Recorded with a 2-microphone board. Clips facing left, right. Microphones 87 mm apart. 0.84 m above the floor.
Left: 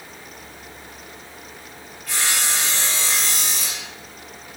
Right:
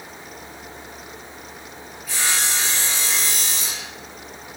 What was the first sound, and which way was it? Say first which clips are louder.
Sawing: even; 80° left.